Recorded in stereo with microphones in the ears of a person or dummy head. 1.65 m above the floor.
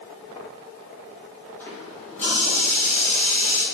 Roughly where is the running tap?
Centre.